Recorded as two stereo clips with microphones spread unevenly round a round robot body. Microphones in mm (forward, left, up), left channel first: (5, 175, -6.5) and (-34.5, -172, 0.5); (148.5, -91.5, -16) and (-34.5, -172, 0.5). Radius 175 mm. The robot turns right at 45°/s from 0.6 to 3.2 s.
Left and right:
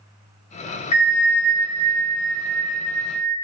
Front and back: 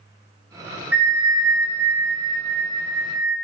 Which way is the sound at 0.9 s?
110° left.